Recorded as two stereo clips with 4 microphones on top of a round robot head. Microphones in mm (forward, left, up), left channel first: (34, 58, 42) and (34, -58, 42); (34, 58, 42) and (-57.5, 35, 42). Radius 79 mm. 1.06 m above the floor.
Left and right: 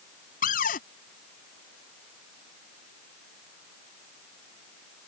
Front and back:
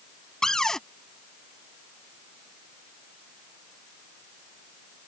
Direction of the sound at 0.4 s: 100° left.